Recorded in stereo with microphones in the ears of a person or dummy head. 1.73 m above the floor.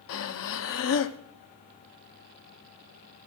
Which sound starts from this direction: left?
Breathing, at 0.1 s.